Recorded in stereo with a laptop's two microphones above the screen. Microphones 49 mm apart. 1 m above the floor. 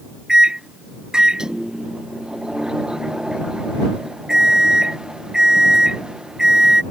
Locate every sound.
0.3 s a microwave: 15° right (ahead or behind)